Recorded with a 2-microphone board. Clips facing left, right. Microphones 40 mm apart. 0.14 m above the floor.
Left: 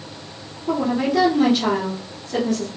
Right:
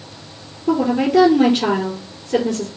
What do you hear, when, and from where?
0.7 s a woman speaking: 45° right (ahead or behind), 3.5 m